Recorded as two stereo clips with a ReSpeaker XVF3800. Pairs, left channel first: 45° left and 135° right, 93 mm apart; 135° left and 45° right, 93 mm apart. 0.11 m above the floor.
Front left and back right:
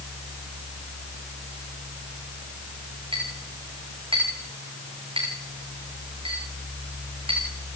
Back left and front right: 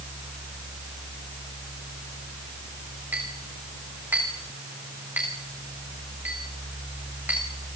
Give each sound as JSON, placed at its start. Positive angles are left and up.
{"t": 3.1, "sound": "a clink", "azimuth_deg": -120, "distance_m": 6.5}